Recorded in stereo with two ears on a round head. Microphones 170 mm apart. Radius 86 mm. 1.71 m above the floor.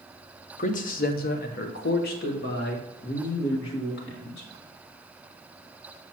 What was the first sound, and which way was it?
A man speaking, 40° left (ahead or behind).